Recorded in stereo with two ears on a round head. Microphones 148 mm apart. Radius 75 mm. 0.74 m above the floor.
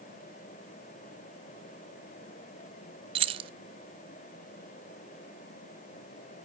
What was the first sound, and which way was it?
Keys jangling, 35° right (ahead or behind).